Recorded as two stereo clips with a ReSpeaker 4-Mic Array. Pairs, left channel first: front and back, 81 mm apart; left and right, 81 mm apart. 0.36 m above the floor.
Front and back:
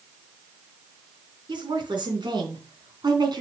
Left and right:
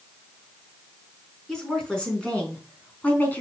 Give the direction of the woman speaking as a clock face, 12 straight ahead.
6 o'clock.